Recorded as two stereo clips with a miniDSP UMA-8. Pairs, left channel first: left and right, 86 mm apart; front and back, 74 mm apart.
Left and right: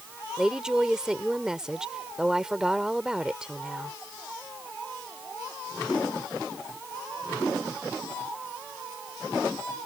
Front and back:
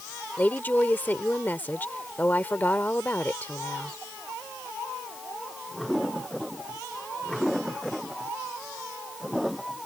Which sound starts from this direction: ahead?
A woman speaking, at 0.4 s.